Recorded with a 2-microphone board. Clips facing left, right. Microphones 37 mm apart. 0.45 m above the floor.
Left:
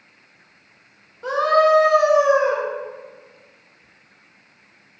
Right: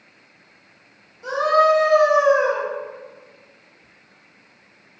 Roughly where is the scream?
Left.